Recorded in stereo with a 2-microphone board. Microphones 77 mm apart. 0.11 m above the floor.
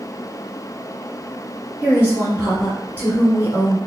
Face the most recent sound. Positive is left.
turn(degrees=-25)  # may be behind; listen again after turning